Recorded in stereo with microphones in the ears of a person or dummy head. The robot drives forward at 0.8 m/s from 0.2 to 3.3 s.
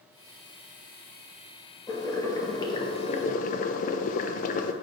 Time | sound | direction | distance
1.9 | boiling | 15° left (ahead or behind) | 1.6 m